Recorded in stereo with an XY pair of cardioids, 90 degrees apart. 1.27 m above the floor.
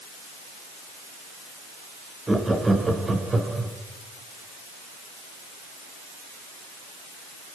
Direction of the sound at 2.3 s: 20° right.